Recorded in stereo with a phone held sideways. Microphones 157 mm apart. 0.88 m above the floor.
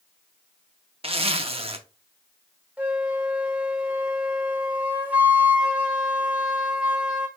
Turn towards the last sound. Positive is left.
turn(degrees=-10)  # may be behind; listen again after turning